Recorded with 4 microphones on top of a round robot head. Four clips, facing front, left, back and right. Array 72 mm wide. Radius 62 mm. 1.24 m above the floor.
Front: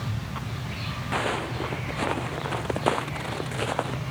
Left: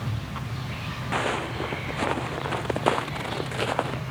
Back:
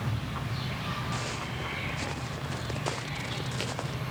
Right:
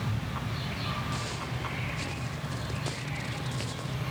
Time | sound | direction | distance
1.1 | footsteps | 50° left | ?